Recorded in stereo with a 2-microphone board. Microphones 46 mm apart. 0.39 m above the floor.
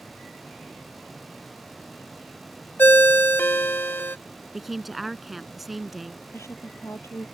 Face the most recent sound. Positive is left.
turn(degrees=80)